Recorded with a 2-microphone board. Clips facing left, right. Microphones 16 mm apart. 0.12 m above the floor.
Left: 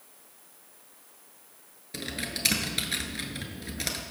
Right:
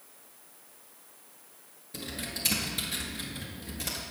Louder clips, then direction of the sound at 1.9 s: Left 3 dB; 45° left (ahead or behind).